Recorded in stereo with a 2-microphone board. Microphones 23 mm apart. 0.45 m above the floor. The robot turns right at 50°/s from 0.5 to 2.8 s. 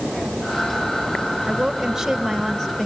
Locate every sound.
1.5 s a woman speaking: 45° right, 2.5 m; by 2.9 s 20° left, 2.5 m